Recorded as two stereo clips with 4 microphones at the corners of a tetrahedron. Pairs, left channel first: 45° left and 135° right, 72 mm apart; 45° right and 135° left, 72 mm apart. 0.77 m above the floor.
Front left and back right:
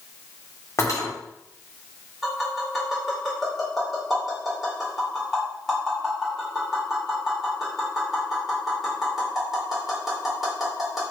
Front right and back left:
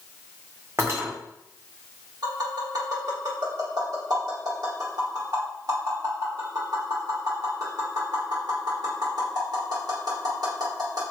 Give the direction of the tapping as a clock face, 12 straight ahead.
7 o'clock.